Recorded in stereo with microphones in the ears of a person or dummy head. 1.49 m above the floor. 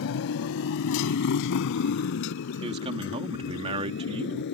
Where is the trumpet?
No trumpet in this recording.